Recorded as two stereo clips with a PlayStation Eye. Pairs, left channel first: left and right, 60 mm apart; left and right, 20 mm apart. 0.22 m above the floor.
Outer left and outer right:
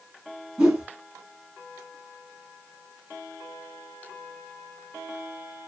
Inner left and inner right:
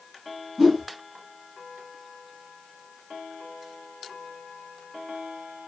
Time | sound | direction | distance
0.6 | a whoosh | 15° right (ahead or behind) | 1.1 m